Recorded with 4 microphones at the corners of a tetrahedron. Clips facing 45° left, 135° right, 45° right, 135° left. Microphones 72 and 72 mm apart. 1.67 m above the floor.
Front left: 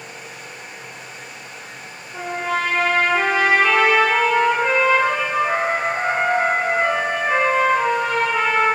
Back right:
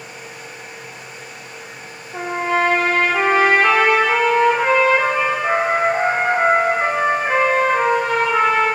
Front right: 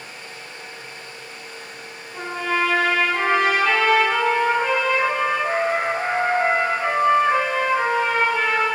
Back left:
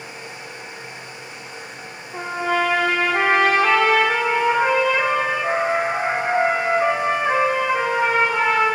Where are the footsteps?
I don't hear footsteps.